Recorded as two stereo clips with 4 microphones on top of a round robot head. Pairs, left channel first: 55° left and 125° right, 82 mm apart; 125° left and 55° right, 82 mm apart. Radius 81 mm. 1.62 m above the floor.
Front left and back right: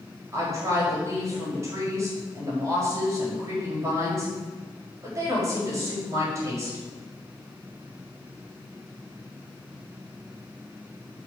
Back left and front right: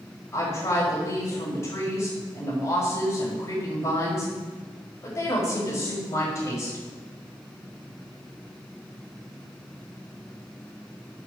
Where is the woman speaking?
Straight behind, 5 m.